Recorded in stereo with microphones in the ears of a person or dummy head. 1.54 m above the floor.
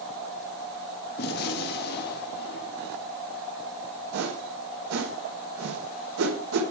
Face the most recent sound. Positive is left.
turn(degrees=-85)